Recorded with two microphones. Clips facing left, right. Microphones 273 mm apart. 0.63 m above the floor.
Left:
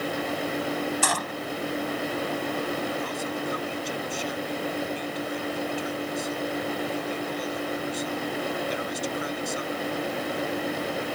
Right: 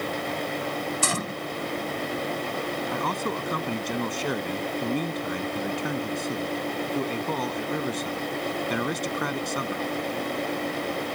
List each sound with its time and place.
1.0 s a gunshot: 30° right (ahead or behind)
2.9 s a man speaking: 70° right (ahead or behind)